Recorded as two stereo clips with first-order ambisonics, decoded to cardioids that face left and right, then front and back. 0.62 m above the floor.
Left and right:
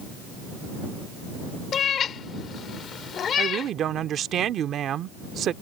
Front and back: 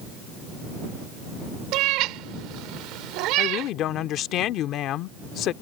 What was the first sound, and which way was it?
A cat meowing, 150° left.